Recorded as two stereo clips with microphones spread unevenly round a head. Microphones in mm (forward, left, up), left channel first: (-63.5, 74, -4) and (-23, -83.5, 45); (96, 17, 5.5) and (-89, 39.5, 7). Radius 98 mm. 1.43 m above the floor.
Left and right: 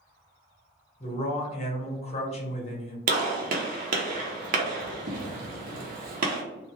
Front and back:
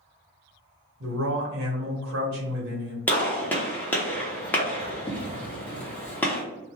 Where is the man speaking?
160° left, 1.1 m.